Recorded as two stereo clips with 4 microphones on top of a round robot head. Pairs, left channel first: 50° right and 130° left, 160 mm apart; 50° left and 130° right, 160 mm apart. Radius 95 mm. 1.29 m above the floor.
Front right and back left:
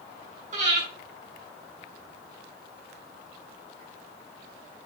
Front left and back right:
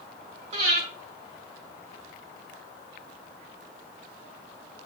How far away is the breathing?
About 6.5 m.